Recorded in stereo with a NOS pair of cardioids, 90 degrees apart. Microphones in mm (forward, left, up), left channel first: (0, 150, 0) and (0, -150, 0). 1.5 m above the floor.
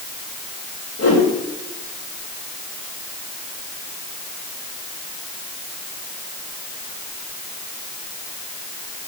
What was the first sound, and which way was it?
A whoosh, 55° left.